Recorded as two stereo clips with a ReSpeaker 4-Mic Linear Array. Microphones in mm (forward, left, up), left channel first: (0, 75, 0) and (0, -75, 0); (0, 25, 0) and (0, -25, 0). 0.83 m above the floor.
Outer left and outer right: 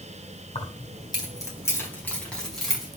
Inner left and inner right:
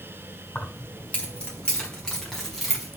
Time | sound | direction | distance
0.6 | keys jangling | 40° left (ahead or behind) | 4 m